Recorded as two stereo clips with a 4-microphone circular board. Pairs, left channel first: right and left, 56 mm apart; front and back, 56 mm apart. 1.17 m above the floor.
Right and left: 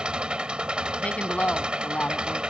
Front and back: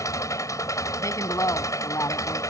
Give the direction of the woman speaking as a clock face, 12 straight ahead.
1 o'clock.